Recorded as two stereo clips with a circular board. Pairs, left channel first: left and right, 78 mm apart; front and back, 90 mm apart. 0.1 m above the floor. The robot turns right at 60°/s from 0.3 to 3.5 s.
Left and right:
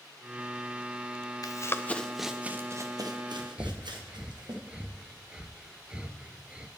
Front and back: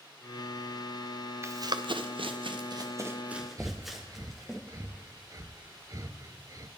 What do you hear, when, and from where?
1.4 s running footsteps: 125° left, 0.7 m; by 4.6 s 90° right, 2.5 m
3.6 s breathing: 160° right, 0.6 m